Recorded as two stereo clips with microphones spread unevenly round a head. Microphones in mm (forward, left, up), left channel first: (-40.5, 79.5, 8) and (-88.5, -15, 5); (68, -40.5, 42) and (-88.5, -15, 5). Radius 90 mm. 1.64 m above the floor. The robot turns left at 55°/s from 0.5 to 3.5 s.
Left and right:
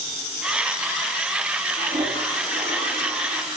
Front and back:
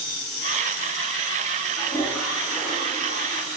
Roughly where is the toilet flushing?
Right.